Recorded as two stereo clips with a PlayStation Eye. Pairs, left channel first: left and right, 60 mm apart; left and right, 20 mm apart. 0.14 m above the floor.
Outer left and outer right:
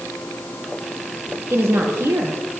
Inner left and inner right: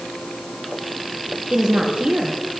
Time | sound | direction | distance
1.5 | a woman speaking | 55° right (ahead or behind) | 2.5 m